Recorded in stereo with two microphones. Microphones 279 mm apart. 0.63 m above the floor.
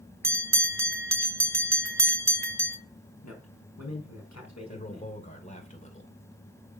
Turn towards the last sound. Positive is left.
turn(degrees=25)  # may be behind; listen again after turning